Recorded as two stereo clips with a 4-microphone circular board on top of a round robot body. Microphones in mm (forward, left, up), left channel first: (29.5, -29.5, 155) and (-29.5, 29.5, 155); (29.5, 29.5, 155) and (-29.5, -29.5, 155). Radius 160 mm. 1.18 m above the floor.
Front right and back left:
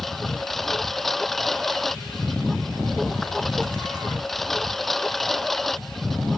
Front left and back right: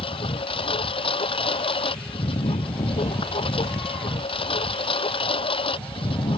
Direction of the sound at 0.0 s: 45° left.